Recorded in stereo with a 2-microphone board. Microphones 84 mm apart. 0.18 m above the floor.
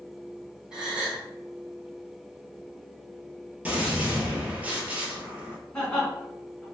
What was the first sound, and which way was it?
A gasp, 10° right (ahead or behind).